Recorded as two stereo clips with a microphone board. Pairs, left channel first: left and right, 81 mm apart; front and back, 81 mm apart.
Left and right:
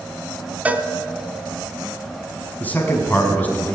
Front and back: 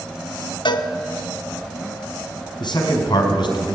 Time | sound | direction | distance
0.7 | a cowbell | 20° right | 1.3 m
2.6 | a man speaking | 20° left | 5 m